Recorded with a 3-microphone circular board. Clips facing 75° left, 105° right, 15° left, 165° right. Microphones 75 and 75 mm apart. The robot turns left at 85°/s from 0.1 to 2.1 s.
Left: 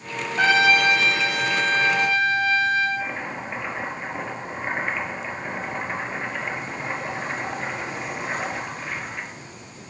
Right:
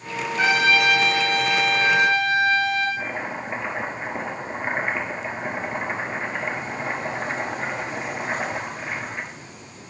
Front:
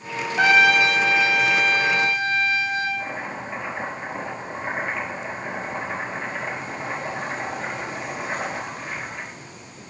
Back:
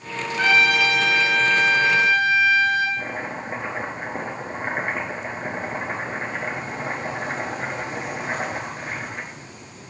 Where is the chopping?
170° right, 1.5 m.